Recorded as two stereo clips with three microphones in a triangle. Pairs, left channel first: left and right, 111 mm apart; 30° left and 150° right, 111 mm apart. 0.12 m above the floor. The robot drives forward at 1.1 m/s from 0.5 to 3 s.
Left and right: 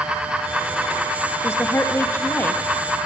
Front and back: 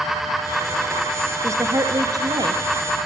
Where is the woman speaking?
155° left, 3 m; by 2.6 s 160° left, 4 m.